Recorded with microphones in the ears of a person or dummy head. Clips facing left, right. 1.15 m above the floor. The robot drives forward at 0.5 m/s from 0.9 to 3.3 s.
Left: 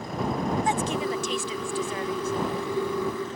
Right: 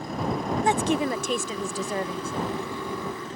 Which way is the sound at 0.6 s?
50° right (ahead or behind).